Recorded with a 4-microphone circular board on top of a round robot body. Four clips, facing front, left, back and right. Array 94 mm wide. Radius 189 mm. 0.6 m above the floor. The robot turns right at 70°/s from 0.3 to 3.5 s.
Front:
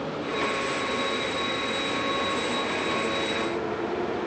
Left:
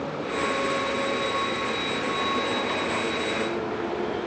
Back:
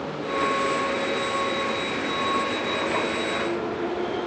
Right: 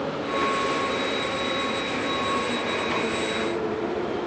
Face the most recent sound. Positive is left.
No sound to turn to.